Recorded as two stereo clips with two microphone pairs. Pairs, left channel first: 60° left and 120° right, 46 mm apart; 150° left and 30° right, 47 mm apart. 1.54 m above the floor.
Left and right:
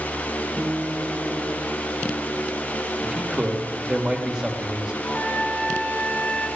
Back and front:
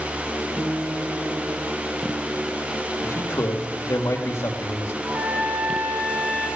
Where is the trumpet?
35° right, 9 m.